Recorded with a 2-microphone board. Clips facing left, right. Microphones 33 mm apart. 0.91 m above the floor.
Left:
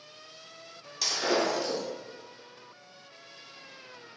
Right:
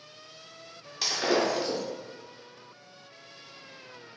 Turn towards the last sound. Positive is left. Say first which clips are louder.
# right 1 dB
turn(degrees=-20)  # may be behind; listen again after turning